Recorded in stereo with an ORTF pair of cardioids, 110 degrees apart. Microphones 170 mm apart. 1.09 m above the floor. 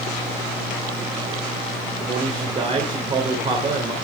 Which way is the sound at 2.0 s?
35° right.